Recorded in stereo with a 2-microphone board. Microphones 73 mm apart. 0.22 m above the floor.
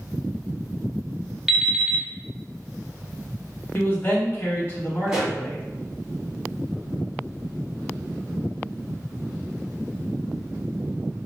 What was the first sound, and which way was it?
An alarm clock, 5° right (ahead or behind).